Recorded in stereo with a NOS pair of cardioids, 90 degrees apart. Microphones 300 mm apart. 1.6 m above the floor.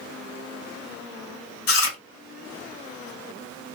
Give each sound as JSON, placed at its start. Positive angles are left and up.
{"t": 1.7, "sound": "chewing", "azimuth_deg": 50, "distance_m": 2.5}